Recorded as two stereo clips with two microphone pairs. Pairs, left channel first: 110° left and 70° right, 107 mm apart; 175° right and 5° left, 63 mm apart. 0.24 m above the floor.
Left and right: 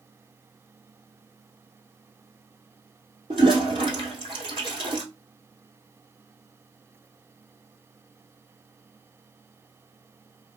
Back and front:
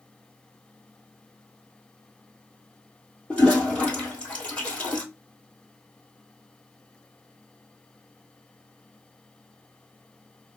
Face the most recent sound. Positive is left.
turn(degrees=-105)